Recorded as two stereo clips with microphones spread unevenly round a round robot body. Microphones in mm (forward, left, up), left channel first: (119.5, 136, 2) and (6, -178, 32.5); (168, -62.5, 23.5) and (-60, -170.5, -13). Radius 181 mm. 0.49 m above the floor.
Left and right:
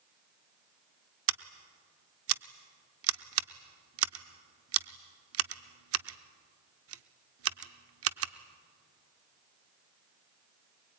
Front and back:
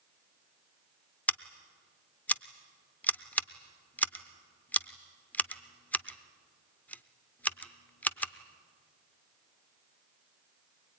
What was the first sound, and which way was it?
Scissors, 65° right.